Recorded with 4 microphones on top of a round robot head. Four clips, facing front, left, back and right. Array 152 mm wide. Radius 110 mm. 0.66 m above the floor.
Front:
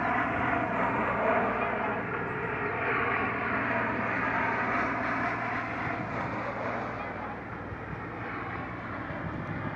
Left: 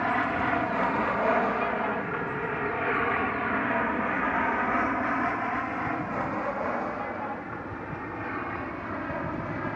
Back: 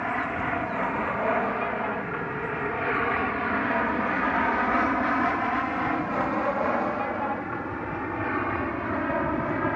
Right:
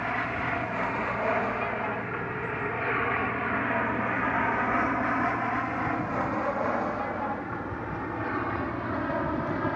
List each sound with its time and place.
0.0 s an aircraft: 80° left; by 9.8 s 160° right